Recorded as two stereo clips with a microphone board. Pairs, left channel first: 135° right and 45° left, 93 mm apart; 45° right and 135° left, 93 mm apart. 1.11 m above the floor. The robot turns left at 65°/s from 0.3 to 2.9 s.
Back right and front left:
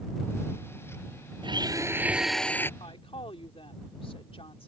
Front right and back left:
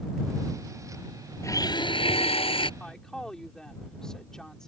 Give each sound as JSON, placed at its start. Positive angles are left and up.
{"t": 1.4, "sound": "a blender", "azimuth_deg": 15}
{"t": 2.8, "sound": "a woman speaking", "azimuth_deg": -125}